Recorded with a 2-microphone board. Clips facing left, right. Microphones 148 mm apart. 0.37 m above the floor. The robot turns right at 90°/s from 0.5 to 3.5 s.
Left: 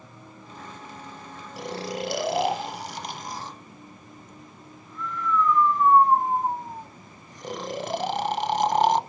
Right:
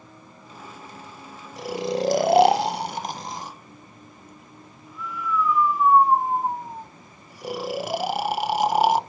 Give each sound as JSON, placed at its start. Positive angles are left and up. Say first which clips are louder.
{"t": 1.6, "sound": "snoring", "louder": "right 6 dB", "side_deg": 0, "distance_m": 0.5}